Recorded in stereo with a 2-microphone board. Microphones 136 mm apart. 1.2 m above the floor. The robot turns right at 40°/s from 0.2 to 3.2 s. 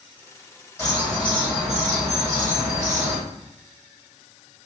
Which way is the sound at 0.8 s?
25° left.